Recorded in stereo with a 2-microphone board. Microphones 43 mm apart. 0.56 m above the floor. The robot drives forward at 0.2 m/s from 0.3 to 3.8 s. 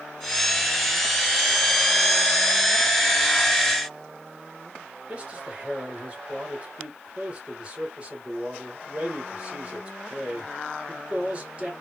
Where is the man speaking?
25° right (ahead or behind), 2.5 m.